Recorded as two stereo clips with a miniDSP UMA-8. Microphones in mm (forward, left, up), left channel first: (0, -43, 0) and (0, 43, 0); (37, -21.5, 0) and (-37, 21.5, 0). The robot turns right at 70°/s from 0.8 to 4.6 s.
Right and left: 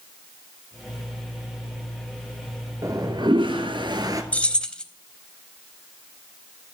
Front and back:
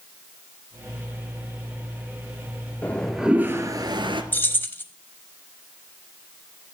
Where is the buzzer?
No buzzer in this recording.